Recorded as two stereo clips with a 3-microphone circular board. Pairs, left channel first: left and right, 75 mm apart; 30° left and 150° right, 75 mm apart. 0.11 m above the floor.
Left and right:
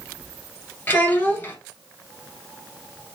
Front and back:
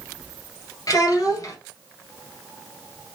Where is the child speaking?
30° left, 1.8 m.